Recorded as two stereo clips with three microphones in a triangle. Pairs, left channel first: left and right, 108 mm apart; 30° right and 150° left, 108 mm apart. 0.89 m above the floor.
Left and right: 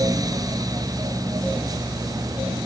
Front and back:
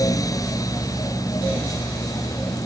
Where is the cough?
No cough in this recording.